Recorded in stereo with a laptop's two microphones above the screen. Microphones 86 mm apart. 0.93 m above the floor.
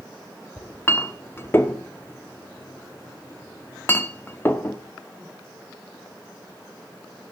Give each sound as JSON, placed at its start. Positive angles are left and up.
{"t": 0.6, "sound": "a clink", "side_deg": 25, "distance_m": 1.3}